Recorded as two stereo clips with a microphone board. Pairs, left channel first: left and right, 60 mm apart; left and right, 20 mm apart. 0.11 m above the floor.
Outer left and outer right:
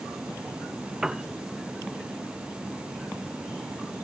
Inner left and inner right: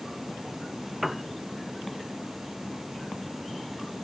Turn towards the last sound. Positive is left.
turn(degrees=-10)  # may be behind; listen again after turning